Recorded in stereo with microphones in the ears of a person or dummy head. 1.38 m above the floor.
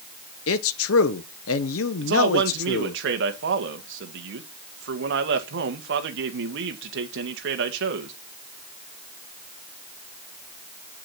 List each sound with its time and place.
0.5 s a man speaking: 70° left (ahead or behind), 1.0 m
2.0 s a man speaking: 55° right (ahead or behind), 1.7 m